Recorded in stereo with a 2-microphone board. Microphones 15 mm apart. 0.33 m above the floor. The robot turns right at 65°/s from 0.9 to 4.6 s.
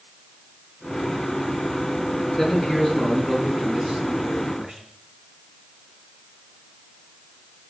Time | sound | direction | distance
2.4 | a man speaking | 135° left | 4 m